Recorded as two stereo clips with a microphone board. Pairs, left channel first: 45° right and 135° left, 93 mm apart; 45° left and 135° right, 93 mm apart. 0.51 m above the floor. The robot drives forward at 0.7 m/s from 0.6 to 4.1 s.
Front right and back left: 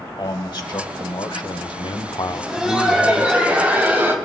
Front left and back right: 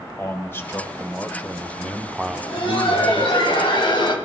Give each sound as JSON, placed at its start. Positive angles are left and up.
{"t": 0.2, "sound": "a man speaking", "azimuth_deg": -15, "distance_m": 1.8}
{"t": 2.3, "sound": "laughter", "azimuth_deg": 50, "distance_m": 3.5}